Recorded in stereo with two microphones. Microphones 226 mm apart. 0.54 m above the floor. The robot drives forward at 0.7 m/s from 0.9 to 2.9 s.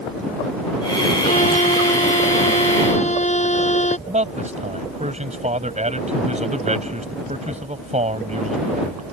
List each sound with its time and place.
1.2 s a violin: 35° left (ahead or behind); by 4.0 s 30° left (ahead or behind)
4.1 s a man speaking: 30° right (ahead or behind)